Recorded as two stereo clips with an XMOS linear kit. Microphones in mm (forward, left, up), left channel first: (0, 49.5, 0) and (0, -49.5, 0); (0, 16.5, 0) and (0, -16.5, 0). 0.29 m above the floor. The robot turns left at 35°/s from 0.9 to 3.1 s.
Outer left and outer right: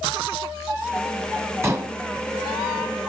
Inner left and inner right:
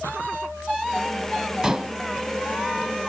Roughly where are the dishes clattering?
Right.